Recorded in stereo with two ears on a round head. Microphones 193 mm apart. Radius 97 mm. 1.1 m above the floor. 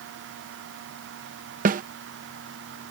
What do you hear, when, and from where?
1.6 s a snare drum: 40° right (ahead or behind)